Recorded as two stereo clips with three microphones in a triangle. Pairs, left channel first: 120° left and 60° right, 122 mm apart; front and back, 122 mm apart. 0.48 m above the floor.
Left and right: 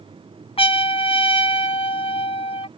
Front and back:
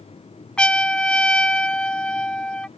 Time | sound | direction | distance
0.6 | a trumpet | 80° left | ?